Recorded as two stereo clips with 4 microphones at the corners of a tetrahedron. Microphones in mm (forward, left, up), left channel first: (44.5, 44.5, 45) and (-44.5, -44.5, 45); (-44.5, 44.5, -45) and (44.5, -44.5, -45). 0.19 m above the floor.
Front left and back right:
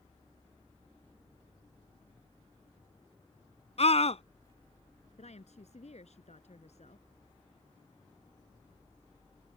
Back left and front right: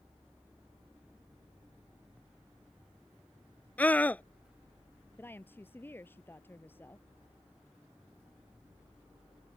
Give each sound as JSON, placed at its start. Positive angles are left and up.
{"t": 3.8, "sound": "a scream", "azimuth_deg": 60}
{"t": 5.2, "sound": "a woman speaking", "azimuth_deg": 65}